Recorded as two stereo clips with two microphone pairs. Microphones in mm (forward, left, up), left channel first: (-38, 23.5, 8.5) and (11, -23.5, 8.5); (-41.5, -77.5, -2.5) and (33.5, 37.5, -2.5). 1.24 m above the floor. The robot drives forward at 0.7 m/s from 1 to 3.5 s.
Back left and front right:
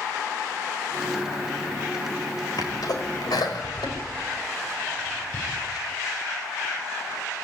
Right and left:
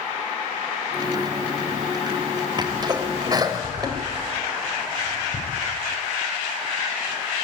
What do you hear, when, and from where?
2.6 s a sneeze: 115° left, 5.5 m; by 5.4 s 120° left, 5.5 m